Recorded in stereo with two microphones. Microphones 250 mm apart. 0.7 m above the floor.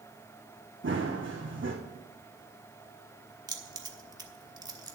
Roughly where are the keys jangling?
Centre.